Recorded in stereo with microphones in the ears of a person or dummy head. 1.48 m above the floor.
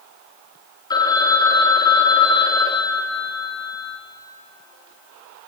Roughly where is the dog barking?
I don't hear a dog barking.